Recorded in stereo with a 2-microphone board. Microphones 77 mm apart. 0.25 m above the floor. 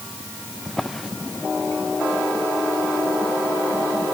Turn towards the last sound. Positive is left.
turn(degrees=0)  # may be behind; listen again after turning